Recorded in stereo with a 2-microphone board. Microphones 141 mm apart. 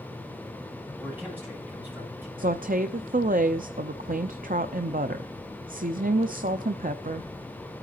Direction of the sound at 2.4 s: 80° right.